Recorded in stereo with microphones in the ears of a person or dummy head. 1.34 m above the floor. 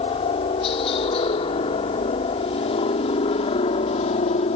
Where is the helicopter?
30° left (ahead or behind); by 4.5 s 35° left (ahead or behind).